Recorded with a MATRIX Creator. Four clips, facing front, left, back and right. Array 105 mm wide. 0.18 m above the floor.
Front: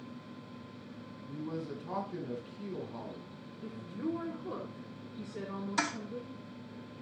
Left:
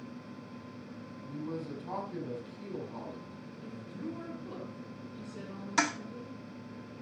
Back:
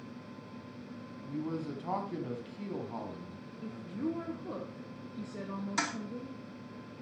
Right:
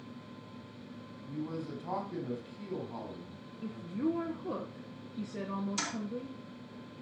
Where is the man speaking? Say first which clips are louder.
Even, back 3 dB; 165° right, 6.5 m.